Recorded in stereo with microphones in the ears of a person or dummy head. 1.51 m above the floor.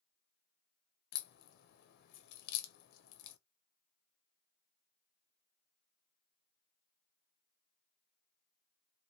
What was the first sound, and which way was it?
A crack, 55° left (ahead or behind).